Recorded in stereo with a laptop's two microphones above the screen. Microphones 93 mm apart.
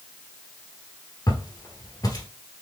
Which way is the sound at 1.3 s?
45° left (ahead or behind).